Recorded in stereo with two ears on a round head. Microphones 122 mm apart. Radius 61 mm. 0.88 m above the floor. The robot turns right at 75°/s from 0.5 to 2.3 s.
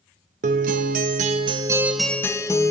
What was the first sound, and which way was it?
A guitar, 115° right.